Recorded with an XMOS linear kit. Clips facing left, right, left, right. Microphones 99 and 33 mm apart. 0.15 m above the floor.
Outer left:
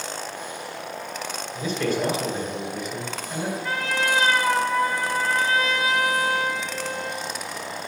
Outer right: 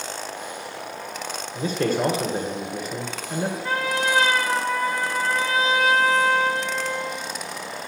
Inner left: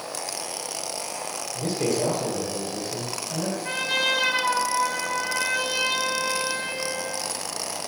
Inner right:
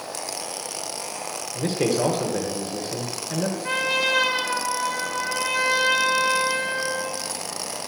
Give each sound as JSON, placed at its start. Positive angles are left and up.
{"t": 1.6, "sound": "a man speaking", "side_deg": -40, "distance_m": 2.0}
{"t": 3.6, "sound": "a trumpet", "side_deg": -30, "distance_m": 4.0}